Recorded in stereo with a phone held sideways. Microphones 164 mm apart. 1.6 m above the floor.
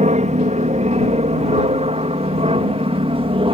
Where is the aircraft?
45° right (ahead or behind); by 3.5 s 35° right (ahead or behind).